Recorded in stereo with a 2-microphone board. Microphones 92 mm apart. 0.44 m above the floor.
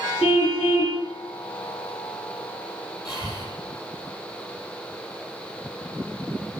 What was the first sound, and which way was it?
A car horn, 75° left (ahead or behind).